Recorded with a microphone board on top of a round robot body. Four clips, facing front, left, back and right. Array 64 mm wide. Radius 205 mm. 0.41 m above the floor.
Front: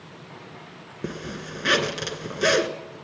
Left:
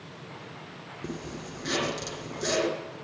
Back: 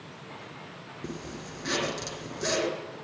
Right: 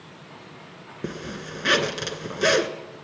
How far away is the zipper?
About 3 m.